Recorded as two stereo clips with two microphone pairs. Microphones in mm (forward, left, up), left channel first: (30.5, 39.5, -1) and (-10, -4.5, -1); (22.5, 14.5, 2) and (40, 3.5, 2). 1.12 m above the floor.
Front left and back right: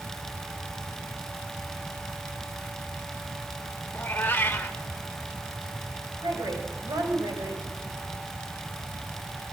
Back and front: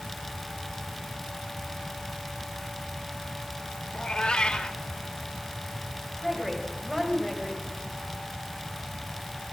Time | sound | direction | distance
3.9 | a cat meowing | 105° left | 1.9 m
6.2 | a woman speaking | 125° right | 6 m